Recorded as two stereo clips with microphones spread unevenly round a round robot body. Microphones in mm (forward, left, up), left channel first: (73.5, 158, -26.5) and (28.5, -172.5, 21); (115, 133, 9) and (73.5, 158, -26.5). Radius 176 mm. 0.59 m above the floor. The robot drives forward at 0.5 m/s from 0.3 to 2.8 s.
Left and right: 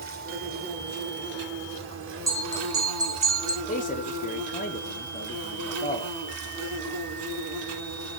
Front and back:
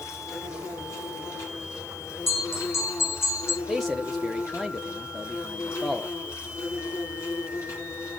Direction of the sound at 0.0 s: 35° right.